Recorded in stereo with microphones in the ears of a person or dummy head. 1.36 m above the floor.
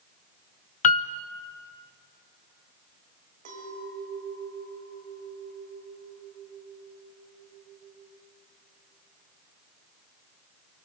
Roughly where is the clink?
Right.